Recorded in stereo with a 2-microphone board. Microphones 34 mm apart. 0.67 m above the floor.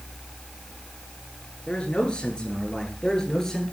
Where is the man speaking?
35° left (ahead or behind), 9.5 m; by 3.6 s 20° left (ahead or behind), 10 m.